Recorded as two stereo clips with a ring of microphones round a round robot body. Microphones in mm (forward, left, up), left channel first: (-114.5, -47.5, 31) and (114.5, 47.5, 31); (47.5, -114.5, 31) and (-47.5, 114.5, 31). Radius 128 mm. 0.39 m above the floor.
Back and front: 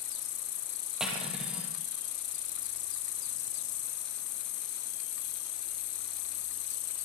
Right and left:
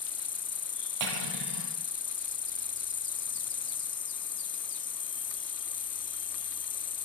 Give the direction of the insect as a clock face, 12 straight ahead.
5 o'clock.